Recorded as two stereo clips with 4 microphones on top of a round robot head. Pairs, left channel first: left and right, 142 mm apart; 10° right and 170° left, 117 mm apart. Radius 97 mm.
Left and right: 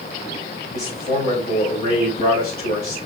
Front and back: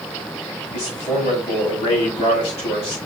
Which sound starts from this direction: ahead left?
A man speaking, at 0.7 s.